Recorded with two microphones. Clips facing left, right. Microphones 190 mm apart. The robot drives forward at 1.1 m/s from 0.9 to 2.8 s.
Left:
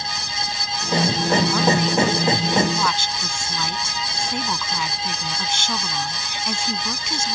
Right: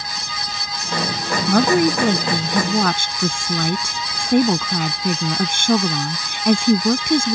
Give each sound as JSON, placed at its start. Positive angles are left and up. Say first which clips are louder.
{"t": 1.5, "sound": "a woman speaking", "louder": "right 5 dB", "side_deg": -60}